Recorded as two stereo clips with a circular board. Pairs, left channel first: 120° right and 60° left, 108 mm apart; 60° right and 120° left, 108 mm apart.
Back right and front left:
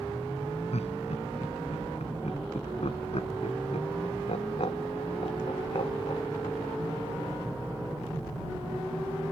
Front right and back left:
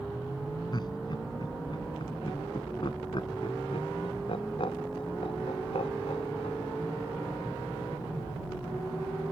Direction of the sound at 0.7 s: 110° right.